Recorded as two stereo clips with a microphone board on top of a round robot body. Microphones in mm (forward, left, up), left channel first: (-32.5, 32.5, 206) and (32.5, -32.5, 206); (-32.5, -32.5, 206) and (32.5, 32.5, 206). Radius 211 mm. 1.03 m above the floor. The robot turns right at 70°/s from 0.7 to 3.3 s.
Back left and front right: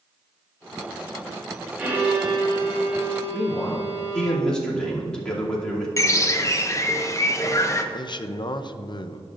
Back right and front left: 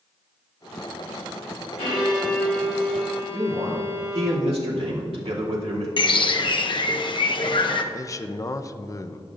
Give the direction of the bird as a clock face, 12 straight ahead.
6 o'clock.